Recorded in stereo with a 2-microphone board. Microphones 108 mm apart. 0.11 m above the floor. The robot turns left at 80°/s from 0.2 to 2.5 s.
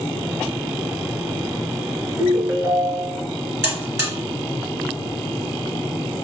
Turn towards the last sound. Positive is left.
turn(degrees=-20)  # may be behind; listen again after turning